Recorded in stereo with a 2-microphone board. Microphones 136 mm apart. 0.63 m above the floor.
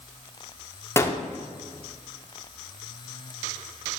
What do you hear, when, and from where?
1.0 s a gunshot: 20° left (ahead or behind), 0.6 m